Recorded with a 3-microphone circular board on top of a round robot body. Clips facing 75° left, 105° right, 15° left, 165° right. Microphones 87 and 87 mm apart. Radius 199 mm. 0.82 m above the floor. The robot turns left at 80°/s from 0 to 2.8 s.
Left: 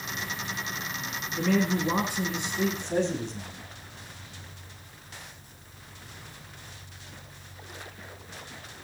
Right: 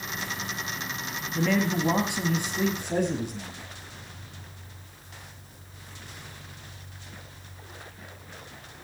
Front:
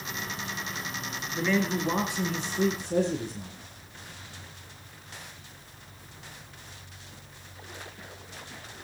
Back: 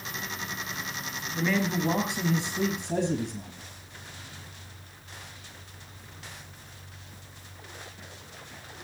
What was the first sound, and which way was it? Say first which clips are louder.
A man speaking: even, even; 70° right.